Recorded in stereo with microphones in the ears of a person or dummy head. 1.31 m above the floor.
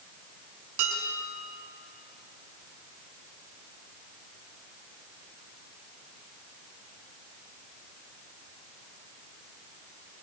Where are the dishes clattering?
75° right (ahead or behind), 6.5 m.